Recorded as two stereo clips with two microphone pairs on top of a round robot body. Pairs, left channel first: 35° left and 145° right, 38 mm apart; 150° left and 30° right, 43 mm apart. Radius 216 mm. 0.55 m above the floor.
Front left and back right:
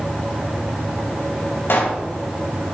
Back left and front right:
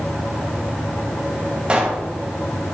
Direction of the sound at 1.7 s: 40° left.